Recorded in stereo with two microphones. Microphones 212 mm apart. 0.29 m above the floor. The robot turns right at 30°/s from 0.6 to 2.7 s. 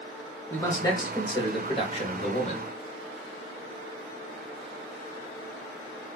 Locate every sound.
0.5 s a man speaking: 10° left (ahead or behind), 1.1 m; by 2.6 s 30° left (ahead or behind), 1.1 m